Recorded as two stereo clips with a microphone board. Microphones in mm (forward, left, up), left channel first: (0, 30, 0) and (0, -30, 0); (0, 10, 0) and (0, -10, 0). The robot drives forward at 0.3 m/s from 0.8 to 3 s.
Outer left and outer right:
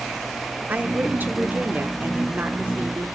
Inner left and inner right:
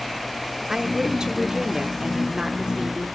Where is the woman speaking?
30° right (ahead or behind), 0.9 m; by 3.1 s 25° right (ahead or behind), 1.0 m.